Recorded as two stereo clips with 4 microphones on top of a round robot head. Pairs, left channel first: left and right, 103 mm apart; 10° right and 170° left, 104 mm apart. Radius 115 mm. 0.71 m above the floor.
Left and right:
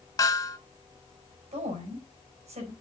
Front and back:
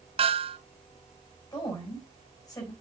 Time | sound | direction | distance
0.2 | a snare drum | 145° left | 3.5 m
1.5 | a woman speaking | 70° right | 5.5 m